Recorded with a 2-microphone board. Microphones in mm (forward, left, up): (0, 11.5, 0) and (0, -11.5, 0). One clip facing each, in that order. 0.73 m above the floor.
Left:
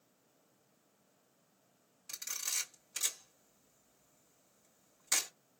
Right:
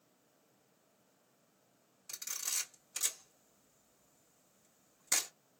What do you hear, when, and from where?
2.1 s a camera shutter: 10° left (ahead or behind), 2.5 m